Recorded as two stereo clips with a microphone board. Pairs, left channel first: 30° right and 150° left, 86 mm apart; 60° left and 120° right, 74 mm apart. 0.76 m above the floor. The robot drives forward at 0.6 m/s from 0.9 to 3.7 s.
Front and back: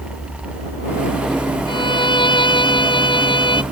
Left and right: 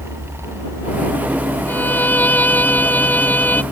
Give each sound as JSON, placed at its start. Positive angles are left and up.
{"t": 1.7, "sound": "a violin", "azimuth_deg": -5}